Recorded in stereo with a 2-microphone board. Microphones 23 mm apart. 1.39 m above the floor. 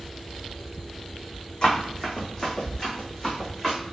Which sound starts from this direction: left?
Running footsteps, at 1.6 s.